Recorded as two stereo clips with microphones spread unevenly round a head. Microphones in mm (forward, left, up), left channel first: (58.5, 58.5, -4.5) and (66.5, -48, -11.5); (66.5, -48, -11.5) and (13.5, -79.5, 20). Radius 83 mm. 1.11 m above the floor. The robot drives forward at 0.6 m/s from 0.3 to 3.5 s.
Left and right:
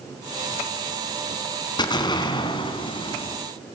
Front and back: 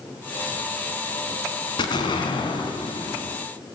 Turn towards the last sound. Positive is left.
turn(degrees=55)